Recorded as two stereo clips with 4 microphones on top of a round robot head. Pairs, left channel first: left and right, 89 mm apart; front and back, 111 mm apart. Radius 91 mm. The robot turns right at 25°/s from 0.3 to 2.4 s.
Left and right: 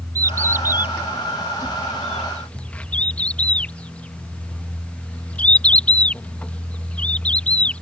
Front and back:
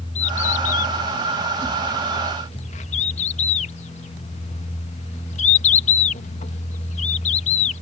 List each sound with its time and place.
0.1 s a bird: 40° right; by 7.8 s 15° left